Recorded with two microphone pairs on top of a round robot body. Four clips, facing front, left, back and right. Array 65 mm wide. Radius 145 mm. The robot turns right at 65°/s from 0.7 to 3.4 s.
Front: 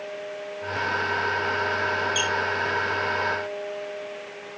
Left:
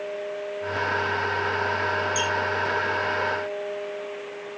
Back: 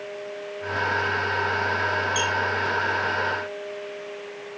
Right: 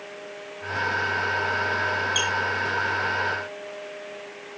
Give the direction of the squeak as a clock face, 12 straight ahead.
3 o'clock.